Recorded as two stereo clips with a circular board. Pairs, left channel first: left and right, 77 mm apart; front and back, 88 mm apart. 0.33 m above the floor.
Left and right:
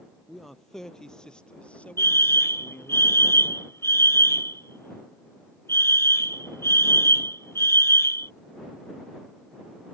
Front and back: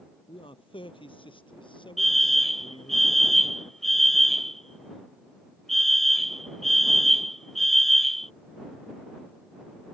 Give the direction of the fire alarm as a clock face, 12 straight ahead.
9 o'clock.